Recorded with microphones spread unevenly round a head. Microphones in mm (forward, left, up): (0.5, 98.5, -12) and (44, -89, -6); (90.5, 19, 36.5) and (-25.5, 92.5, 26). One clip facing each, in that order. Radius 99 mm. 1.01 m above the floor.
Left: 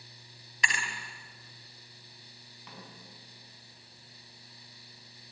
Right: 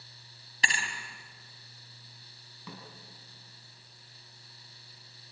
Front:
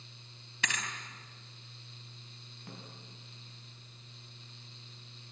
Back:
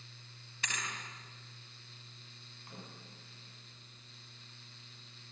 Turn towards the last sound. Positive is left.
turn(degrees=-75)